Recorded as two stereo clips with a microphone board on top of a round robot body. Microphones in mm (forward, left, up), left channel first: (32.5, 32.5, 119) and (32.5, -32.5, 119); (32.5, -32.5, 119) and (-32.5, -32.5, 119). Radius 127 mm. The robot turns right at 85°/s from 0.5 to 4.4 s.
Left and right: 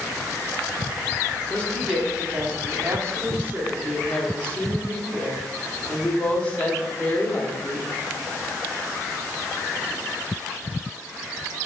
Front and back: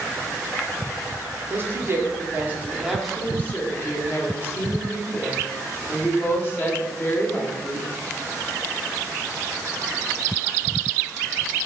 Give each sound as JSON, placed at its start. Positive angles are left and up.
{"t": 1.5, "sound": "a woman speaking", "azimuth_deg": 145, "distance_m": 1.0}